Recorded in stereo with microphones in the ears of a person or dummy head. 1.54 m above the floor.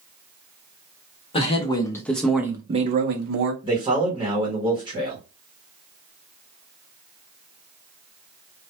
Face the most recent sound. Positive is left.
turn(degrees=-10)  # may be behind; listen again after turning